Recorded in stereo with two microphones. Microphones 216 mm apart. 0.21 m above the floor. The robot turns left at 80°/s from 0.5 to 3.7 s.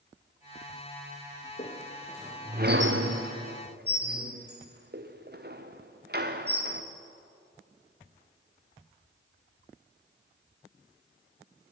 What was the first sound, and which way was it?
A squeak, 40° left (ahead or behind).